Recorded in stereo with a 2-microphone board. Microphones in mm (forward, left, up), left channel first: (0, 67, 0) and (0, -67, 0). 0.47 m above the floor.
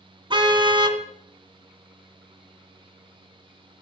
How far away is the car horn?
About 2 m.